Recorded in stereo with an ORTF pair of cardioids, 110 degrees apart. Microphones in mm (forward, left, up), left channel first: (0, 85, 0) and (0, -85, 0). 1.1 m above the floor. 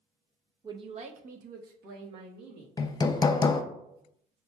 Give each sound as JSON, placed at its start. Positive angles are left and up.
{"t": 0.6, "sound": "a man speaking", "azimuth_deg": -20, "distance_m": 0.7}
{"t": 2.8, "sound": "hammering", "azimuth_deg": 25, "distance_m": 0.5}